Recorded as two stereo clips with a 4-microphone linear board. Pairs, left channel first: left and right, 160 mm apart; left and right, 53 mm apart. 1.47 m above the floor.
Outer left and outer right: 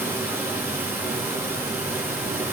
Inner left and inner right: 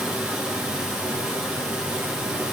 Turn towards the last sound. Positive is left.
turn(degrees=-15)  # may be behind; listen again after turning